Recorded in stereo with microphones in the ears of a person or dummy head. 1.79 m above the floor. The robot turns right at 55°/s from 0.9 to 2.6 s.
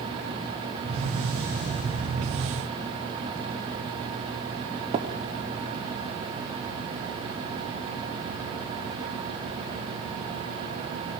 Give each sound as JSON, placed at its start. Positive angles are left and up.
{"t": 4.9, "sound": "tapping", "side_deg": -25, "distance_m": 1.2}